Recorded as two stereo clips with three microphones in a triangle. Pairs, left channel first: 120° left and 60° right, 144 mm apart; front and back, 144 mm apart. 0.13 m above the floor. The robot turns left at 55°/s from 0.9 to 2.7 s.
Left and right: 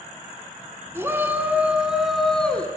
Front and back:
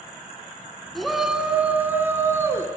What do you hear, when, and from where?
0.9 s a shout: 85° right, 1.1 m; by 2.7 s straight behind, 1.1 m